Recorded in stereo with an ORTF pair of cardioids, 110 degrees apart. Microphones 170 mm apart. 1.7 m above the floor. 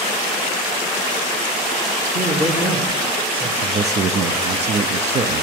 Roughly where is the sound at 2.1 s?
Ahead right.